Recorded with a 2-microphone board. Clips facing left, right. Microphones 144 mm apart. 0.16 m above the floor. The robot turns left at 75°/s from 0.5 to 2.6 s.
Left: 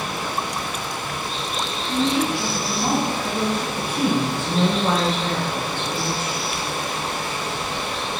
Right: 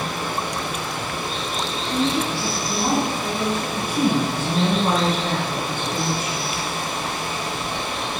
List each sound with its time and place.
0.0 s running water: 55° right, 1.1 m; by 8.2 s 145° left, 1.1 m
1.9 s a woman speaking: 10° right (ahead or behind), 1.1 m; by 3.7 s 25° right (ahead or behind), 1.1 m
3.8 s a woman speaking: 10° right (ahead or behind), 1.1 m